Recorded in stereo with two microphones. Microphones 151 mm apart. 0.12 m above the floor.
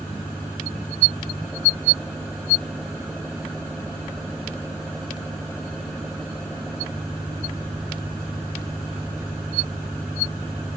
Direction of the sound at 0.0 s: 5° right (ahead or behind).